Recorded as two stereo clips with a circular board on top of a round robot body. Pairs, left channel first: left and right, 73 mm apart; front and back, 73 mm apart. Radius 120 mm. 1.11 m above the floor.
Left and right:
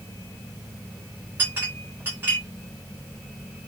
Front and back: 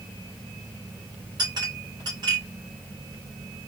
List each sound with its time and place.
1.4 s a clink: 150° right, 2.5 m